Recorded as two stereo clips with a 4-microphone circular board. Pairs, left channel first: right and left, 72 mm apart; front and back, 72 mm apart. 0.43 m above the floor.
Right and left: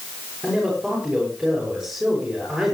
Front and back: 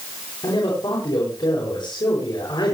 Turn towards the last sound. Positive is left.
turn(degrees=5)